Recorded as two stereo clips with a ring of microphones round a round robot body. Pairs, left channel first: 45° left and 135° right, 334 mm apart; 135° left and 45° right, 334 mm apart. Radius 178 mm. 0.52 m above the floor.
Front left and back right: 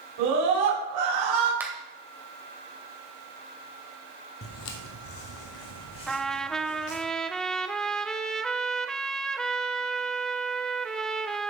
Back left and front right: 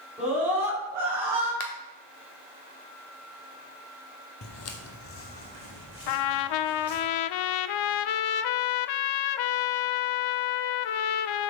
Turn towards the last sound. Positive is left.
turn(degrees=135)